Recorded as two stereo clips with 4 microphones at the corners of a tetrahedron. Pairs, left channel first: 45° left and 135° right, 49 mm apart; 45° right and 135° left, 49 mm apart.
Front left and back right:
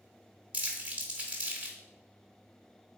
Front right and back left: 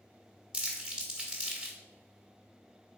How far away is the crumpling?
About 1.1 m.